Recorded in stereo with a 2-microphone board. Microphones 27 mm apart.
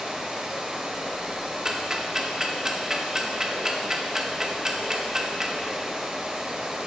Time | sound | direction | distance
0.0 | running water | 35° right (ahead or behind) | 1.1 m
1.6 | ticking | 20° right (ahead or behind) | 0.7 m